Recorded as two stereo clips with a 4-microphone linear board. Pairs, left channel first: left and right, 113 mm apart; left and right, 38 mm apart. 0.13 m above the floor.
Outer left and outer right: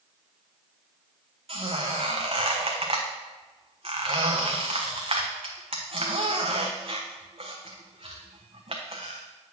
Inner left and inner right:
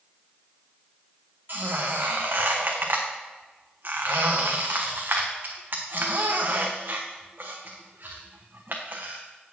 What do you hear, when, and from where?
1.5 s a squeak: 60° right (ahead or behind), 1.3 m